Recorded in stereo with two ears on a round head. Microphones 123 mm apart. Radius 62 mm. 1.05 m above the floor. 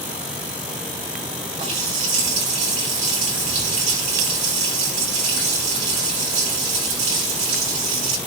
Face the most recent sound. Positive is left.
turn(degrees=-50)  # may be behind; listen again after turning